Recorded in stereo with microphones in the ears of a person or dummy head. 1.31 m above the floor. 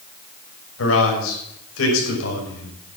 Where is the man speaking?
85° left, 6.5 m.